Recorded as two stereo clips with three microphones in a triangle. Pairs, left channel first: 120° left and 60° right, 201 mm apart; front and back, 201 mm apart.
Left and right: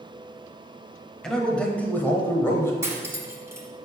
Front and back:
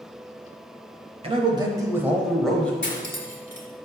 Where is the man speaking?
155° right, 1.0 m; by 2.7 s 70° left, 0.9 m.